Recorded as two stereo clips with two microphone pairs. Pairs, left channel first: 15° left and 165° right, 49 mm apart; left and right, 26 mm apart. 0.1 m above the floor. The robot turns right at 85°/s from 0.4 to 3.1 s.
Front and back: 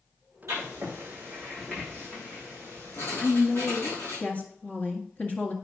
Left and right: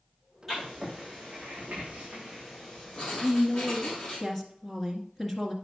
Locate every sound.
0.5 s writing: 175° right, 6.5 m; by 4.2 s 45° left, 6.5 m
3.2 s a woman speaking: 25° left, 1.8 m